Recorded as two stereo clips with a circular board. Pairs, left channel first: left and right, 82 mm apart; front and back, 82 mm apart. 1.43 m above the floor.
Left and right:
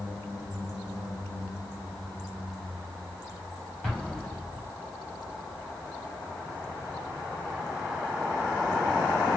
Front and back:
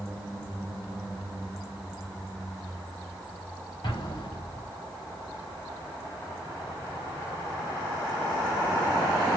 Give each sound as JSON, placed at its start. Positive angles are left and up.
{"t": 3.8, "sound": "an explosion", "azimuth_deg": 10, "distance_m": 2.0}